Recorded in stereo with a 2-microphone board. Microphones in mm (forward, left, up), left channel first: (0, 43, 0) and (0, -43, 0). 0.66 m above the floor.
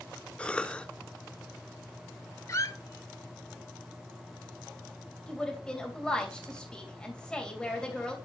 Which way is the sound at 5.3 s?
10° left (ahead or behind).